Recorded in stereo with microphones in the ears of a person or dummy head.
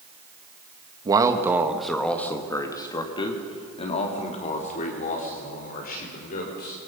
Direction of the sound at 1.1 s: 20° right (ahead or behind).